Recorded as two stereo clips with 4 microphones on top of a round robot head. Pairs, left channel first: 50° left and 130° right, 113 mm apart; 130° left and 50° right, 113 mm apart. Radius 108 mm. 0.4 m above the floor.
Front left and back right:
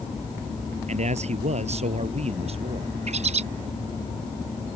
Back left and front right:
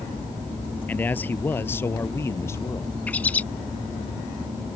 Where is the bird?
150° right.